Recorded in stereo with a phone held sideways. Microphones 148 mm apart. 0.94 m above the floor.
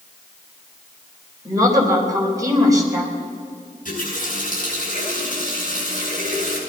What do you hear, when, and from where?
1.4 s a woman speaking: 25° right (ahead or behind), 4 m
3.9 s a running tap: 60° left (ahead or behind), 7.5 m